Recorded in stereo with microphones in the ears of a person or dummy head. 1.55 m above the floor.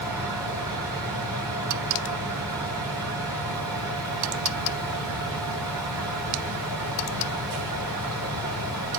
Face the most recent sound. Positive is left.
turn(degrees=-20)  # may be behind; listen again after turning